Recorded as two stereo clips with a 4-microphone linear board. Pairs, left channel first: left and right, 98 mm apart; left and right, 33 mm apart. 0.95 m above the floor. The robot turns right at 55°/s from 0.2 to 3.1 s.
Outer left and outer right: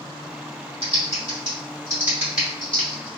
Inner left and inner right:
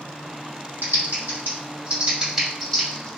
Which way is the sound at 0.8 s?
80° right.